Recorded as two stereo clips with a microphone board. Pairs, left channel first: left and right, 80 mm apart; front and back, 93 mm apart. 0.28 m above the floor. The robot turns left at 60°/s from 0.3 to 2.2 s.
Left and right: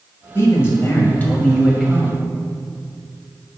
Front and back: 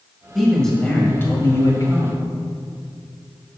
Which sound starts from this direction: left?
A man speaking, at 0.3 s.